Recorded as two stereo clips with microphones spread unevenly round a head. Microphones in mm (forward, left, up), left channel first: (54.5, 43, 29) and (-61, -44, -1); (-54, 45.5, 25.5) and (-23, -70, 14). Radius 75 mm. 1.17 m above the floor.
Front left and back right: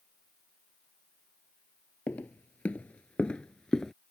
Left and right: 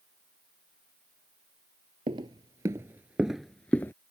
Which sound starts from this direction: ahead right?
Footsteps, at 2.1 s.